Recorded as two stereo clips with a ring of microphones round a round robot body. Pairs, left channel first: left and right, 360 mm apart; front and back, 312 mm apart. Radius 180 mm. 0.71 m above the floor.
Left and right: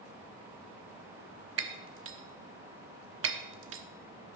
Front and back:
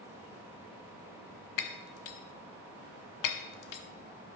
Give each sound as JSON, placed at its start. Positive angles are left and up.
{"t": 1.6, "sound": "breaking glass", "azimuth_deg": -35, "distance_m": 0.8}